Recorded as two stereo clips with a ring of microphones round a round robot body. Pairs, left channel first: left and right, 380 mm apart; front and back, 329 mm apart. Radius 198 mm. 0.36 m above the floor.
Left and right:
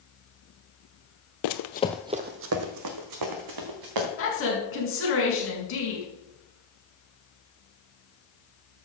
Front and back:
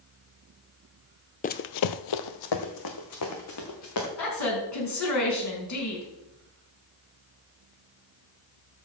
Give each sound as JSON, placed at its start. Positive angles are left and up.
{"t": 1.4, "sound": "running footsteps", "azimuth_deg": 65, "distance_m": 0.6}
{"t": 4.2, "sound": "a woman speaking", "azimuth_deg": 35, "distance_m": 5.0}